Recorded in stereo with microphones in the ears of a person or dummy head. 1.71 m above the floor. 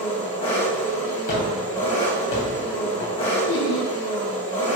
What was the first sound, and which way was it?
An engine running, 30° left (ahead or behind).